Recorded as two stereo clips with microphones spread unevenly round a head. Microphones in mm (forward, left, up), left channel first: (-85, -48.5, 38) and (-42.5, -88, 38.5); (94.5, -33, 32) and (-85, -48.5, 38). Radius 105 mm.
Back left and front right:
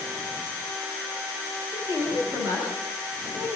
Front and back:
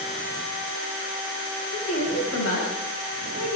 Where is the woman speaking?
5° left, 9 m.